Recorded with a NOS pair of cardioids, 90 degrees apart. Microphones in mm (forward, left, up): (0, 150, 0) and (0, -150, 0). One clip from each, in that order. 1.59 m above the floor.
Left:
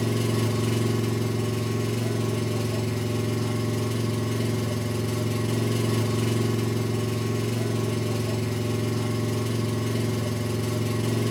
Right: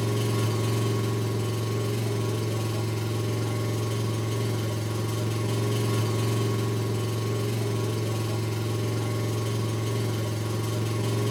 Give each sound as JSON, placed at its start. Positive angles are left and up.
{"t": 0.0, "sound": "an engine running", "azimuth_deg": 15, "distance_m": 1.8}